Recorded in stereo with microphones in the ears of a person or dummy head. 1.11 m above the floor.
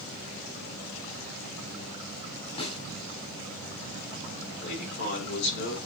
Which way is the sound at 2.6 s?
35° left (ahead or behind).